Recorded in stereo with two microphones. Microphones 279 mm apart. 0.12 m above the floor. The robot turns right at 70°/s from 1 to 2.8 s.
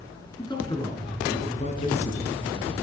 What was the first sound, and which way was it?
A man speaking, 15° left (ahead or behind).